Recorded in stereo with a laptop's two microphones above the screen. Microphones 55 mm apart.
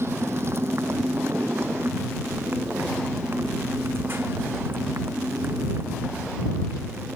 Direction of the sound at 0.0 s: 50° right (ahead or behind).